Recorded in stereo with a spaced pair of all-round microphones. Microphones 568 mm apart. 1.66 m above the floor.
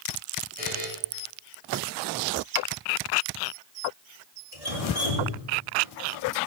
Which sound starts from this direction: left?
Dripping, at 4.5 s.